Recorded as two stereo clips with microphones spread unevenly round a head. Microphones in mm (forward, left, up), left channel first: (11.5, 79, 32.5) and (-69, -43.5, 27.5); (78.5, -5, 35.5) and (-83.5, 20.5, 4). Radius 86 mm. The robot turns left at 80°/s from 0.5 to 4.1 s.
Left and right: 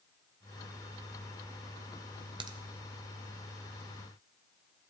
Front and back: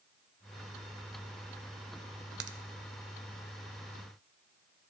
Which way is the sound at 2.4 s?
175° right.